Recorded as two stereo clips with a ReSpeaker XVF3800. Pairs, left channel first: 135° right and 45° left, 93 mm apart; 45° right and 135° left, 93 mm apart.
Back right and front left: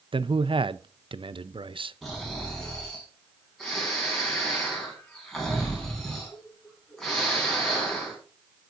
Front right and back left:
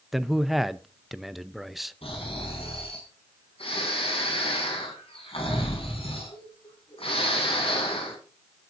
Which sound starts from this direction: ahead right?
Snoring, at 2.0 s.